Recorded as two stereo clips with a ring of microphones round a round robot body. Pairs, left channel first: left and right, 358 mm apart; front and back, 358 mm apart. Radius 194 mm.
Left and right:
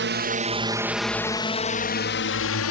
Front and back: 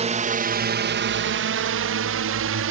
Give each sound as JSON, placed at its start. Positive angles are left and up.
{"t": 0.0, "sound": "a drone", "azimuth_deg": -125}